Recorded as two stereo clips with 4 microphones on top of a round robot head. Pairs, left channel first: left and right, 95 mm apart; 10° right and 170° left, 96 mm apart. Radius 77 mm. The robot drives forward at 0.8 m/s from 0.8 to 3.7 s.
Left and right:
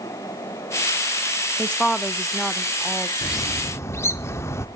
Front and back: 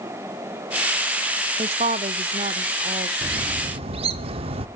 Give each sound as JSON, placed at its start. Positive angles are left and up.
{"t": 1.6, "sound": "a woman speaking", "azimuth_deg": 170, "distance_m": 0.6}
{"t": 3.2, "sound": "a bird", "azimuth_deg": 135, "distance_m": 0.6}